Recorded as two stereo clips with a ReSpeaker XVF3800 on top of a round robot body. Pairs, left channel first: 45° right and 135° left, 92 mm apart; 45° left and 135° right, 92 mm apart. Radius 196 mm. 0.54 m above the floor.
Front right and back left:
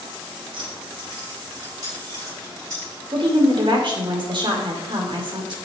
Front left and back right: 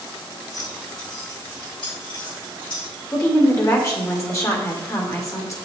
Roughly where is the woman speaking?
Left.